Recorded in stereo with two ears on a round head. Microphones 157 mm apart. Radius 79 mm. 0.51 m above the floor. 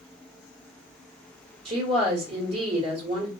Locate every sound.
1.6 s a woman speaking: 35° right (ahead or behind), 1.3 m